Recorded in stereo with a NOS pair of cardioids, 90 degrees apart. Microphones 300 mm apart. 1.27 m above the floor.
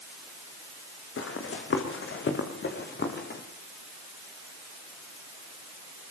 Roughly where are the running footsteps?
Ahead left.